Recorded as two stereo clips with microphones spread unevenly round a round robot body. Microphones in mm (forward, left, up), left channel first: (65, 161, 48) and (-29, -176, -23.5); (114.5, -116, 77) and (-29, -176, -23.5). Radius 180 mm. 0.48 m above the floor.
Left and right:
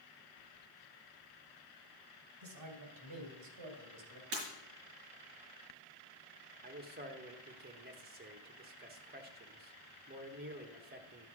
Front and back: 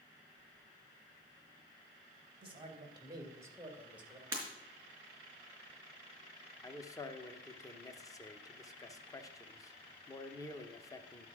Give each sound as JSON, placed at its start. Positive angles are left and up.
{"t": 2.4, "sound": "a man speaking", "azimuth_deg": -135, "distance_m": 2.5}
{"t": 4.3, "sound": "breaking glass", "azimuth_deg": -85, "distance_m": 4.5}
{"t": 6.6, "sound": "a man speaking", "azimuth_deg": -85, "distance_m": 1.0}